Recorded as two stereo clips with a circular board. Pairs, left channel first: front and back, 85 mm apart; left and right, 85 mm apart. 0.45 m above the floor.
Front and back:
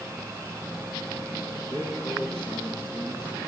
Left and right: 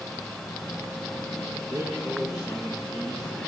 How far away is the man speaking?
About 7 m.